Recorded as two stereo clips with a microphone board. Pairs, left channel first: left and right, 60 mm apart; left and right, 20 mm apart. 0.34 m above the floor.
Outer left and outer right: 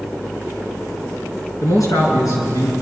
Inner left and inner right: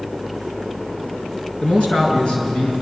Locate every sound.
1.6 s a man speaking: 75° left (ahead or behind), 5.5 m